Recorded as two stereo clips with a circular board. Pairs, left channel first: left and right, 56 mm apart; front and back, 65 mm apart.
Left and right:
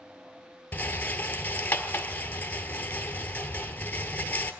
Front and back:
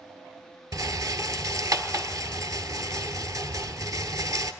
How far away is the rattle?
About 1.2 m.